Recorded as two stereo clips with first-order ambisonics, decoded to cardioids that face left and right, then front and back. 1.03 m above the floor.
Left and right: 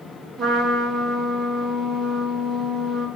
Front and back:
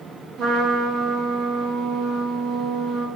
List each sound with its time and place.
0.4 s a trumpet: 155° right, 0.7 m